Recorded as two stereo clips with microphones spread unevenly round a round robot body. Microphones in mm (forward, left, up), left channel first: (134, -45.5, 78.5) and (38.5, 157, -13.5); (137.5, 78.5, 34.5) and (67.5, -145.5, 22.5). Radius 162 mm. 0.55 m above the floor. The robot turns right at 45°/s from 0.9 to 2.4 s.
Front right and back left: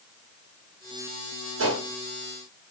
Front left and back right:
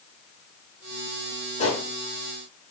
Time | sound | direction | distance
1.6 | a gunshot | 140° left | 0.9 m